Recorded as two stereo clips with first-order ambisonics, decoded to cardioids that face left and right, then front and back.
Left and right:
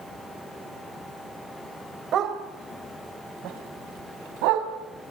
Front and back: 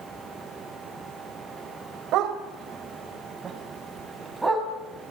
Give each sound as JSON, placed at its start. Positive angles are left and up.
{"t": 2.1, "sound": "a dog barking", "azimuth_deg": -140, "distance_m": 3.0}